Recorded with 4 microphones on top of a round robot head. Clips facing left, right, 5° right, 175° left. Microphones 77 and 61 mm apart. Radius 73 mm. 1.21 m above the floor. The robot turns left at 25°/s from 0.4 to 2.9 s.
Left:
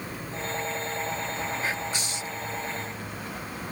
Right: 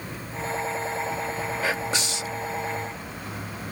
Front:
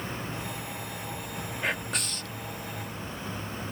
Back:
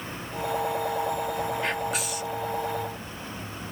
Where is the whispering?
90° right; by 2.4 s 110° right.